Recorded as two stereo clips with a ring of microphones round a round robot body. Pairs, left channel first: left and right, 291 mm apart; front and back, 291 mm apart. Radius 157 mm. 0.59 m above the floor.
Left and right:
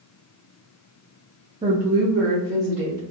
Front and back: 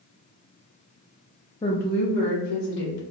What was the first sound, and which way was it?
A woman speaking, 55° right.